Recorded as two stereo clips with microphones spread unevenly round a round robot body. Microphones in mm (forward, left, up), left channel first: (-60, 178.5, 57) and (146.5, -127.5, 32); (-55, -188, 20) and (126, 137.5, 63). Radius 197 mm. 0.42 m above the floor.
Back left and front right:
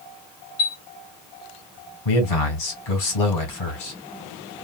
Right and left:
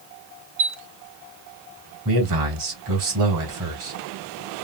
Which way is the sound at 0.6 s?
100° left.